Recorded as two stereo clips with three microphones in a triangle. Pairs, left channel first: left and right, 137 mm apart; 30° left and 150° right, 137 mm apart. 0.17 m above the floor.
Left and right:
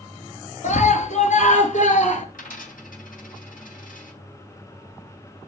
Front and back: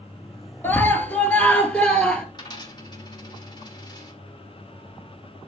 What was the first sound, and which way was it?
A scream, 105° left.